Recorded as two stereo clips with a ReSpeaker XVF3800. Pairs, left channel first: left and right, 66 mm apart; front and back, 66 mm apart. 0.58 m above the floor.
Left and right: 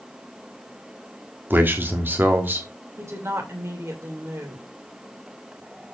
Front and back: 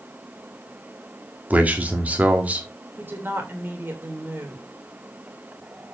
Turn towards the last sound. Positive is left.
turn(degrees=-125)